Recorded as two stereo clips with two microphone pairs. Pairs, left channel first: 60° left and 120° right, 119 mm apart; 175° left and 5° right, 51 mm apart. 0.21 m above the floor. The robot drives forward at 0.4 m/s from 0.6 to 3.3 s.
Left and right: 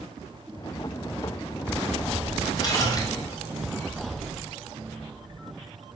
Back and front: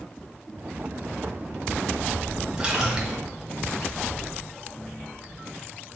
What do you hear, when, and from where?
2.6 s a splash: 55° left, 1.4 m; by 3.2 s 70° left, 1.4 m